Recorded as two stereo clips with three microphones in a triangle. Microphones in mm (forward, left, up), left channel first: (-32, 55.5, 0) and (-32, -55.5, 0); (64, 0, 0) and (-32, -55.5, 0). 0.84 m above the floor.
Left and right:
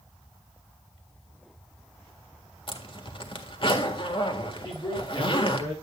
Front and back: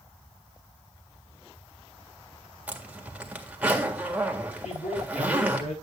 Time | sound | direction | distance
2.7 | a zipper | 130° left | 1.7 m
4.6 | a man speaking | 30° left | 8 m